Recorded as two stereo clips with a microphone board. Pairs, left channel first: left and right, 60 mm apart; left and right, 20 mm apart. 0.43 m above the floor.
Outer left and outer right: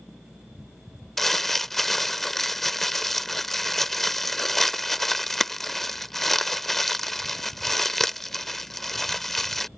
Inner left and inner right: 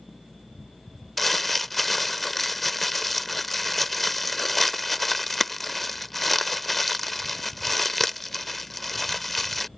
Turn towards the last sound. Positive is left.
turn(degrees=5)  # may be behind; listen again after turning